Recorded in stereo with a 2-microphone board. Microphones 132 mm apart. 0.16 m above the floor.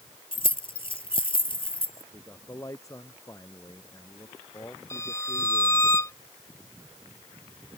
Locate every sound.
0.3 s keys jangling: 40° left (ahead or behind)
2.1 s a man speaking: 25° left (ahead or behind)
4.9 s a violin: 25° left (ahead or behind)